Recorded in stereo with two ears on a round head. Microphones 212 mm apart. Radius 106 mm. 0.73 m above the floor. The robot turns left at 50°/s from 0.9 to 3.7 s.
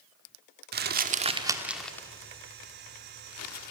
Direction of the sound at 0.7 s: 45° right (ahead or behind).